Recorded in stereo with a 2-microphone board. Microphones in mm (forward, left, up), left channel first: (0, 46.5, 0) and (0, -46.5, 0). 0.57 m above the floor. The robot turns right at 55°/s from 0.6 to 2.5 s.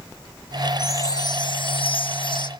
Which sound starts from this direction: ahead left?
A chime, at 0.8 s.